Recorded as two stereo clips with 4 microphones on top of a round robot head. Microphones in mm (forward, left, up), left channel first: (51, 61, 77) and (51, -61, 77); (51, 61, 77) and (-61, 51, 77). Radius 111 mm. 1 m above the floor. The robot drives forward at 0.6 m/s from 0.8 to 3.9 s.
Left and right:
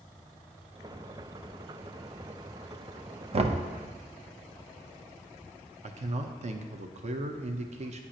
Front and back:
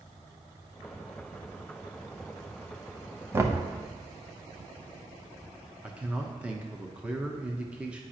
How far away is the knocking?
About 0.8 m.